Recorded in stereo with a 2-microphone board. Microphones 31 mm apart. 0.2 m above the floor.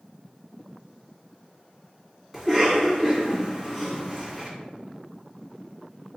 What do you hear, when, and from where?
2.3 s a cough: 5° right (ahead or behind), 1.7 m